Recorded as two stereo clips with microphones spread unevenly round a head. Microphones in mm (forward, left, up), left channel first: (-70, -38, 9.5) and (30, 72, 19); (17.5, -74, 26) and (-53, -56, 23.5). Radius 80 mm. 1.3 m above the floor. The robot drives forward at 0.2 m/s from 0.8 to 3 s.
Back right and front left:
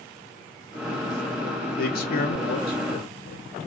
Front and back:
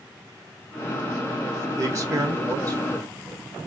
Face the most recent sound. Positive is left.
turn(degrees=-155)